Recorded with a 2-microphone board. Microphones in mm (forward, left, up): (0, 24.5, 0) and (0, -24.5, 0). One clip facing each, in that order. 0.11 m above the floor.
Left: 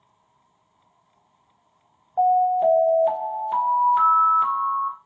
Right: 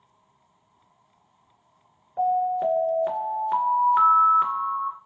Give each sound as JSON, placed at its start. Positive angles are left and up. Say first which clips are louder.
{"t": 2.2, "sound": "an alarm", "louder": "left 5 dB", "side_deg": -25, "distance_m": 1.9}